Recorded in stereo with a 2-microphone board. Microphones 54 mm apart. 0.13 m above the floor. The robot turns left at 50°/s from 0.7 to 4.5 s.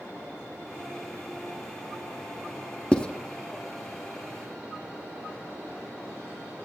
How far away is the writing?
About 0.6 m.